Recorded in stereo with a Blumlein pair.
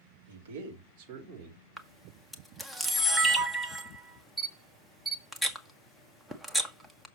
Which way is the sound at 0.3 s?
70° right.